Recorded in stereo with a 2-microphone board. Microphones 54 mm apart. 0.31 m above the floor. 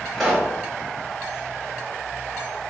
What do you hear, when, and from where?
0.1 s a pop: 5° left (ahead or behind), 1.0 m